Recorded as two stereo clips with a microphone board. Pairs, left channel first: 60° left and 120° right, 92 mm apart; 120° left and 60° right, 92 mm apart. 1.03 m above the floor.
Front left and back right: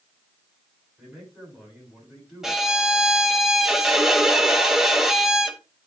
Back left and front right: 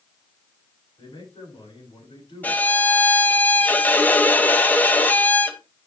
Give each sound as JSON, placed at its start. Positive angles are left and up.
{"t": 1.0, "sound": "a man speaking", "azimuth_deg": 150, "distance_m": 6.0}
{"t": 2.4, "sound": "a violin", "azimuth_deg": 160, "distance_m": 0.8}